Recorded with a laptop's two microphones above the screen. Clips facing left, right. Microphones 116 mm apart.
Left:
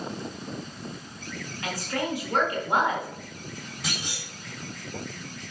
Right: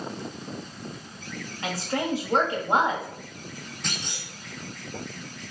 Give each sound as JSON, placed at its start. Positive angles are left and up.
{"t": 1.6, "sound": "a woman speaking", "side_deg": -30, "distance_m": 2.0}
{"t": 3.8, "sound": "a clunk", "side_deg": 10, "distance_m": 3.0}